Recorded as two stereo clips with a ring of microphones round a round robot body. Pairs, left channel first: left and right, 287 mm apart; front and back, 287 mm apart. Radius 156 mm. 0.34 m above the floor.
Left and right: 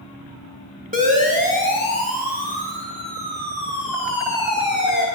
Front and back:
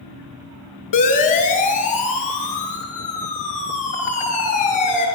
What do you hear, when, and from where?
0.9 s a siren: 25° right, 7.5 m; by 5.1 s 30° right, 10 m